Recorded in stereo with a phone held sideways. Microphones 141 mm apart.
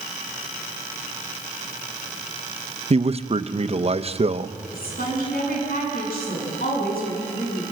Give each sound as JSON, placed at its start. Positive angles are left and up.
{"t": 2.9, "sound": "a man speaking", "side_deg": -45, "distance_m": 0.8}
{"t": 4.7, "sound": "a woman speaking", "side_deg": 85, "distance_m": 9.5}